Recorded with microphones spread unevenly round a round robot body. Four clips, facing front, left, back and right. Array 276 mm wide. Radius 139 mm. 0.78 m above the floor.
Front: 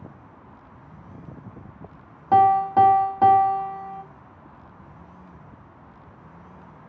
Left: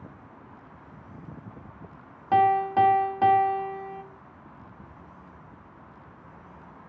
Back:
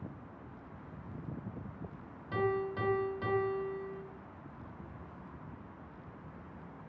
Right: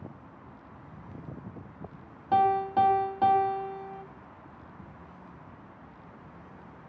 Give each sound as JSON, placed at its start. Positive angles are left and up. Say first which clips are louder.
{"t": 2.3, "sound": "a piano", "louder": "left 3 dB, front 17 dB", "azimuth_deg": 5, "distance_m": 0.7}